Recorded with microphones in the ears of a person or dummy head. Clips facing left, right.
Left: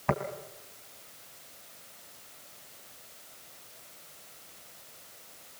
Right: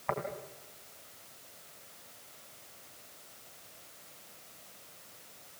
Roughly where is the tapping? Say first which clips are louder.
Left 5 dB; left.